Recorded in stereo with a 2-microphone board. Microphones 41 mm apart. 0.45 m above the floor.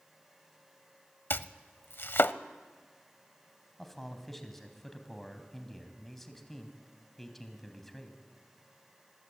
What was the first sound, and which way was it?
Chopping, 60° left (ahead or behind).